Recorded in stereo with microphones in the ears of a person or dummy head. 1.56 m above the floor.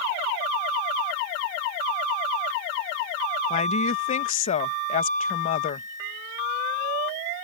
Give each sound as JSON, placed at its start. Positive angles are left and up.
{"t": 3.5, "sound": "a woman speaking", "side_deg": 35}